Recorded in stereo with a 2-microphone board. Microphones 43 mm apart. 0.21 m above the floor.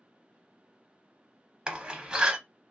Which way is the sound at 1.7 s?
20° right (ahead or behind).